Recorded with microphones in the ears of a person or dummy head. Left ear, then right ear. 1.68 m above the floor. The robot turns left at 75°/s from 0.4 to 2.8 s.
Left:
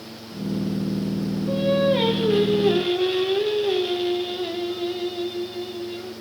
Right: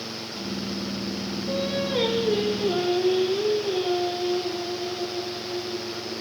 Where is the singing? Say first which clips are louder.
Left 7 dB; 165° right, 0.9 m; by 6.1 s 95° left, 0.9 m.